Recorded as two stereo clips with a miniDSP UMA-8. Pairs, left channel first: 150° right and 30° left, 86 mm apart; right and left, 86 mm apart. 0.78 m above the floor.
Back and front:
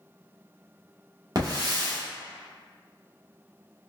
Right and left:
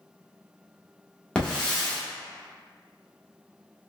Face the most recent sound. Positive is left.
turn(degrees=-10)